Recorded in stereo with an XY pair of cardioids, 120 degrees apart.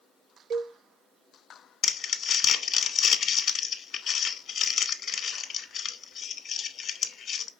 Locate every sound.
0.5 s a cowbell: 65° right, 0.7 m
1.8 s crumpling: 45° left, 0.9 m